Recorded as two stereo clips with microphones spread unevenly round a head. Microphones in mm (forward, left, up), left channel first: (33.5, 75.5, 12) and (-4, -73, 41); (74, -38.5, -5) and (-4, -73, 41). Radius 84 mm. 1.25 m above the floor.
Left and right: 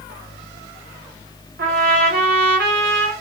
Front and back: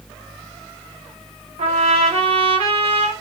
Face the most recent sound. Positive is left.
turn(degrees=-145)